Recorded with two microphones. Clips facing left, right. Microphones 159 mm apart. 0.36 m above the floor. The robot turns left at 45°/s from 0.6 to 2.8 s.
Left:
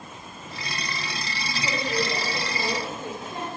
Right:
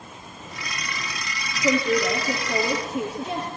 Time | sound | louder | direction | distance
1.6 | a woman speaking | right 7 dB | 45° right | 6.5 m